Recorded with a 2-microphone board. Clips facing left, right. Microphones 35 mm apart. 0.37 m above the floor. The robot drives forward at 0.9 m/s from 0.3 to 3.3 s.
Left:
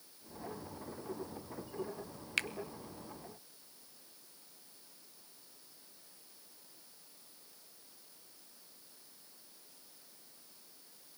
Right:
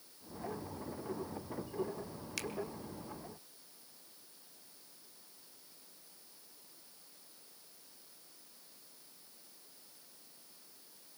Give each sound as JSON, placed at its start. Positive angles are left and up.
{"t": 2.4, "sound": "a finger snap", "side_deg": 40, "distance_m": 0.9}